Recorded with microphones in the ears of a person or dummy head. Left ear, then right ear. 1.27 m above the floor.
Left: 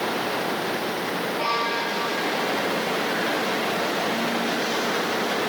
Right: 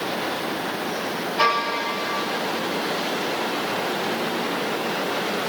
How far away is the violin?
About 1.8 m.